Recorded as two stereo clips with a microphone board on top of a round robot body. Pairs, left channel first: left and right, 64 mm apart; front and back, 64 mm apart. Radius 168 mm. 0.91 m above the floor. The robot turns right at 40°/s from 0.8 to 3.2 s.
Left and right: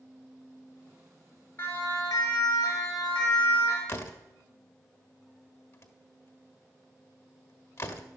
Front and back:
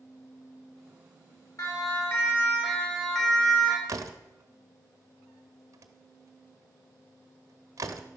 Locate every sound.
1.6 s a siren: 30° left, 5.5 m; by 3.8 s 80° left, 4.5 m
3.9 s a door slam: 140° left, 1.3 m